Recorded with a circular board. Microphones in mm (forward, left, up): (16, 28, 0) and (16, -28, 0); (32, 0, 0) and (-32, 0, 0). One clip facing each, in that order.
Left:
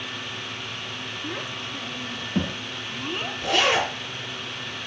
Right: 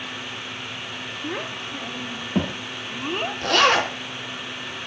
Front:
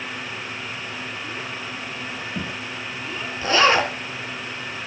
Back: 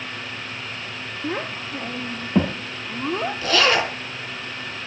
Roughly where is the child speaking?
Behind right.